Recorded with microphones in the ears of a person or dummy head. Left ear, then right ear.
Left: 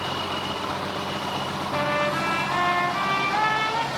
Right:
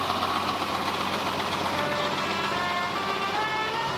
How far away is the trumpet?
About 1.7 m.